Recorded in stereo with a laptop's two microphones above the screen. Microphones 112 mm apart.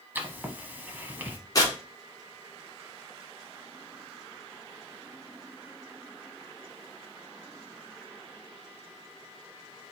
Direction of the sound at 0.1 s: 15° right (ahead or behind).